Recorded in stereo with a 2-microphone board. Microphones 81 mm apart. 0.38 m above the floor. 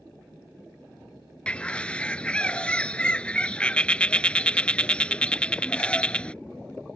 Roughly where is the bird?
Centre.